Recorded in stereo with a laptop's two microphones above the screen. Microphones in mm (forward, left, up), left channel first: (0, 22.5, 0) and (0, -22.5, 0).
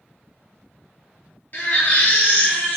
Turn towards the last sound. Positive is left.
turn(degrees=45)  # may be behind; listen again after turning